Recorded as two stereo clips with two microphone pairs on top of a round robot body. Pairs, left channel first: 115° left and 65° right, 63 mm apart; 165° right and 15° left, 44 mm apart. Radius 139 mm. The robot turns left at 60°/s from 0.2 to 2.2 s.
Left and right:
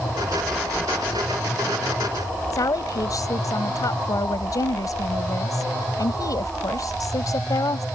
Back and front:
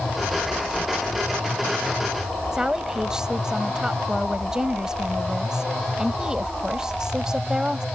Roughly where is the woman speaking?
Left.